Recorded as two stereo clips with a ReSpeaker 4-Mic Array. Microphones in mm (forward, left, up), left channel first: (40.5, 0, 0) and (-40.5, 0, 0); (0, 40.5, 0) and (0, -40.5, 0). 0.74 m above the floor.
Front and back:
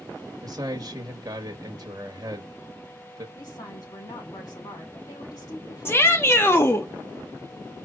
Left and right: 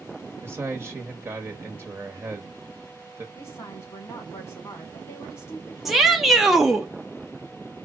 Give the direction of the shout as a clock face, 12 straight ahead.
12 o'clock.